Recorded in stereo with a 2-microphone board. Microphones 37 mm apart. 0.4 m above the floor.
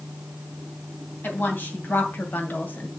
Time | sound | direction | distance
1.2 | a woman speaking | 65° left (ahead or behind) | 2.5 m